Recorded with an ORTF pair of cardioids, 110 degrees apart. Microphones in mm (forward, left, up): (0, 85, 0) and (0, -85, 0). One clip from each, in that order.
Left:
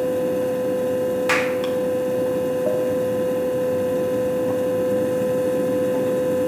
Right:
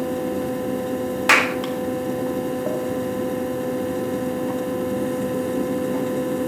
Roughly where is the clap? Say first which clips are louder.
Right 7 dB; ahead right.